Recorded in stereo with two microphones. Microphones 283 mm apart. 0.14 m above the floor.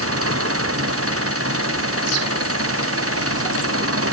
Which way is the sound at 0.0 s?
55° right (ahead or behind).